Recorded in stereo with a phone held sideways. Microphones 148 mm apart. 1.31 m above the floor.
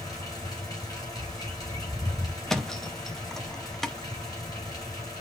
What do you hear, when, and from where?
0.0 s a fan: 25° left (ahead or behind), 6.5 m
1.1 s a bird: 15° left (ahead or behind), 3 m
2.5 s a thud: centre (ahead or behind), 0.7 m